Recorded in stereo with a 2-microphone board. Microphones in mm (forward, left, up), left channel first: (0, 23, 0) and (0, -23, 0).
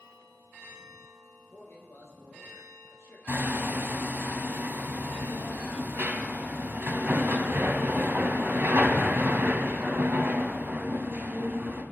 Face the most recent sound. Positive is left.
turn(degrees=-60)  # may be behind; listen again after turning